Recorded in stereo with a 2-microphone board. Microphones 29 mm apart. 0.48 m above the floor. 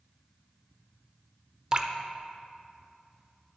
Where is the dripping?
30° right (ahead or behind), 0.7 m.